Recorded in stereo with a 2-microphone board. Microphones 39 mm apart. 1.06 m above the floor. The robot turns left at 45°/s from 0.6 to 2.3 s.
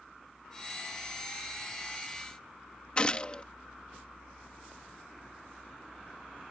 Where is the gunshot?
30° left (ahead or behind).